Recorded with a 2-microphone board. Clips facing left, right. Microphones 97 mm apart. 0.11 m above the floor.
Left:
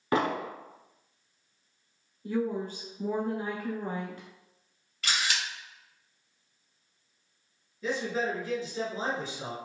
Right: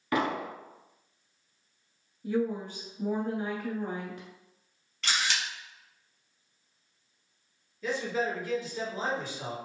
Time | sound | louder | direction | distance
0.1 | an explosion | left 1 dB | 30° left (ahead or behind) | 0.5 m
2.2 | a woman speaking | right 1 dB | 15° right (ahead or behind) | 1.4 m
5.0 | a camera shutter | even | 5° left (ahead or behind) | 1.8 m
7.8 | a man speaking | even | 20° left (ahead or behind) | 1.9 m